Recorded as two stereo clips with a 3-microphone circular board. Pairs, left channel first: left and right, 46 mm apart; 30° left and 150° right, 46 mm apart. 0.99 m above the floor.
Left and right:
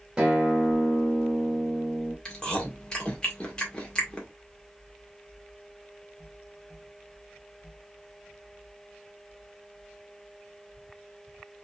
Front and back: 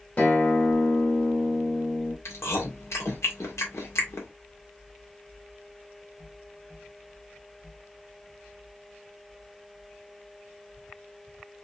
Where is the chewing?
20° left, 1.8 m.